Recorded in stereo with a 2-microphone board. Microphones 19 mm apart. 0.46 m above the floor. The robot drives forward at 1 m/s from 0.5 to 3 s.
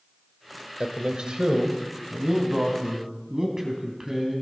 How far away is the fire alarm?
I don't hear a fire alarm.